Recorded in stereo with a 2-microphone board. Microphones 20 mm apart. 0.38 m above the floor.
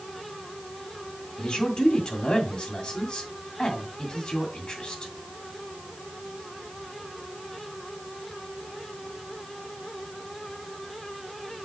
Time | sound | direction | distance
1.4 | a man speaking | 35° left (ahead or behind) | 2.5 m